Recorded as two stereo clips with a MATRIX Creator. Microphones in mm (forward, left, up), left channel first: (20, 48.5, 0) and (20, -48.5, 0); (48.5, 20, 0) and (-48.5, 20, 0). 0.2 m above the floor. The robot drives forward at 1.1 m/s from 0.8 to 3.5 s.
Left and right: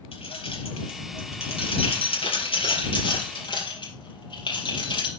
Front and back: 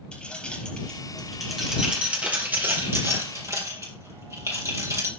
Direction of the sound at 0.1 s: 80° left.